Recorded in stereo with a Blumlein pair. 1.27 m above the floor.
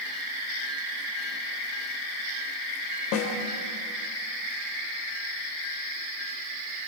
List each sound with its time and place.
3.1 s a snare drum: 40° left, 2.5 m